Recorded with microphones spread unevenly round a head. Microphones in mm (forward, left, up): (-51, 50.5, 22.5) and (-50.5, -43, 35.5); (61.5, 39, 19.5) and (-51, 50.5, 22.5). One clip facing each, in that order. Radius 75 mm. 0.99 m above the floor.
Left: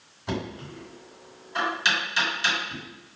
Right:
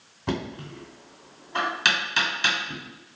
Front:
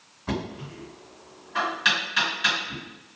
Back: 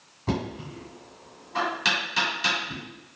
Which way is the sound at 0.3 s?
125° right.